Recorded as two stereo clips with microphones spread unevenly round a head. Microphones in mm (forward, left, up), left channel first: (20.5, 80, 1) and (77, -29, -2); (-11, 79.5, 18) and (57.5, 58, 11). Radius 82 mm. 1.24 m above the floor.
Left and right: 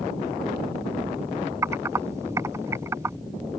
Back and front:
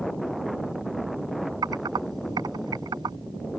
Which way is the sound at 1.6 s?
5° left.